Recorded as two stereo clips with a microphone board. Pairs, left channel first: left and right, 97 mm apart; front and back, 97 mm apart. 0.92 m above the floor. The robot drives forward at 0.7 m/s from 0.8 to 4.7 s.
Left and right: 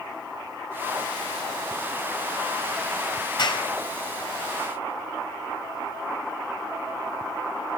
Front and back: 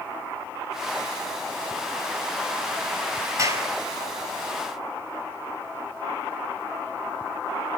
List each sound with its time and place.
3.4 s a clap: 125° left, 5 m; by 3.7 s 130° left, 5 m